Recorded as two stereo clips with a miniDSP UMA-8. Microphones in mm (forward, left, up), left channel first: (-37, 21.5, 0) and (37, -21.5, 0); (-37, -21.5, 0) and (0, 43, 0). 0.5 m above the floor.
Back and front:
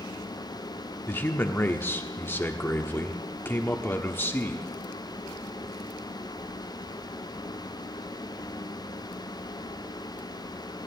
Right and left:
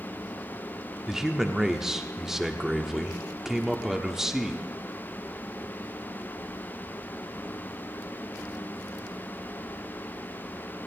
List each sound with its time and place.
1.1 s a man speaking: 135° left, 1.0 m